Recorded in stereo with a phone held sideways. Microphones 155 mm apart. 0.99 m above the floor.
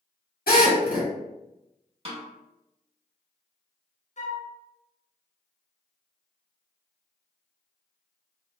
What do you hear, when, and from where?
0.5 s a drill: 75° left (ahead or behind), 1.7 m
2.0 s a snare drum: 40° right (ahead or behind), 1.0 m
4.2 s a flute: 50° left (ahead or behind), 0.6 m